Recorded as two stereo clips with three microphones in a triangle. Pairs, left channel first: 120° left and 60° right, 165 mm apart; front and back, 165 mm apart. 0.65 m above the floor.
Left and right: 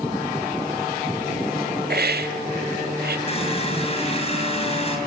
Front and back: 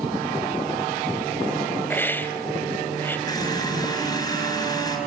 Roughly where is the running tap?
Ahead left.